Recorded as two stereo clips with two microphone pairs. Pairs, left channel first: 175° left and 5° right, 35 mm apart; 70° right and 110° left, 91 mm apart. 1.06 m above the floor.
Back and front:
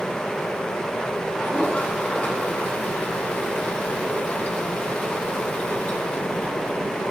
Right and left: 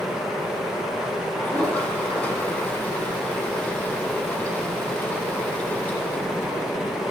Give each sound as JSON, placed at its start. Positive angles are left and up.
{"t": 1.4, "sound": "a toilet flushing", "azimuth_deg": -140, "distance_m": 7.5}